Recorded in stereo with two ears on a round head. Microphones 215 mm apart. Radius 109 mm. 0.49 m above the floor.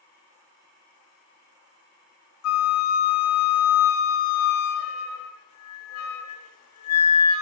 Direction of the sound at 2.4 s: 70° left (ahead or behind).